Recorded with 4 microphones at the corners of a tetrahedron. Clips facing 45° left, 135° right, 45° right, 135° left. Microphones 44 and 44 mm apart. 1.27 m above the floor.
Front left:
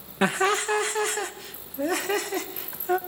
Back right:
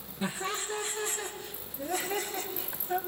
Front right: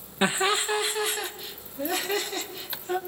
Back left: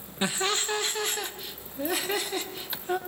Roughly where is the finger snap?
I don't hear a finger snap.